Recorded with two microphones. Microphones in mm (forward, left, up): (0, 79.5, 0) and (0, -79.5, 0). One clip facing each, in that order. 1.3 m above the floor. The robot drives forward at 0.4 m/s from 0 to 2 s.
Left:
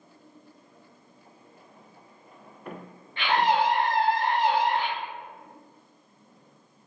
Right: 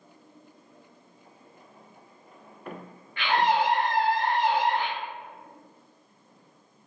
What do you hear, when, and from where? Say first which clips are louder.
3.2 s a scream: left 1 dB; 30° left (ahead or behind), 0.6 m